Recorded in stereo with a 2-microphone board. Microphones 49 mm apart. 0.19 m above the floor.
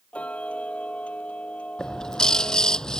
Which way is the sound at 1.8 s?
15° left (ahead or behind).